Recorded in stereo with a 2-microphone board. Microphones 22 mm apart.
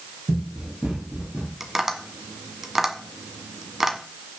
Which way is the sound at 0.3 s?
60° right (ahead or behind).